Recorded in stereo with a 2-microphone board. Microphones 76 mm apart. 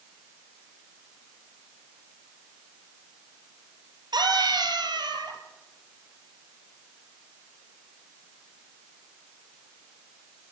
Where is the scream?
65° right (ahead or behind), 5 m; by 5.4 s 70° right (ahead or behind), 4.5 m.